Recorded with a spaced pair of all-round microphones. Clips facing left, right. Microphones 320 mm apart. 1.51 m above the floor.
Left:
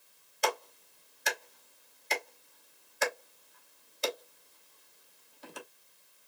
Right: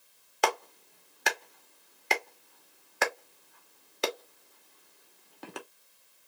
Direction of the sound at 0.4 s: 70° right (ahead or behind).